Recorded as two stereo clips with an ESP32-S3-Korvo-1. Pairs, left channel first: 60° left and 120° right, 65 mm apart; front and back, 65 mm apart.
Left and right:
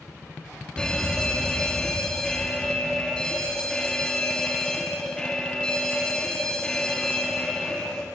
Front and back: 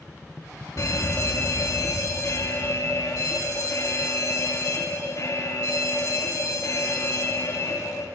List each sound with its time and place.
0.8 s a fire alarm: 15° right, 2.5 m